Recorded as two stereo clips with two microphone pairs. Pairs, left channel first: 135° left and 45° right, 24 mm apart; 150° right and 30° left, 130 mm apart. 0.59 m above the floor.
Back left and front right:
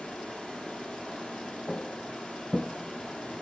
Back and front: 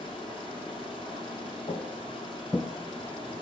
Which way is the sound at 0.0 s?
160° left.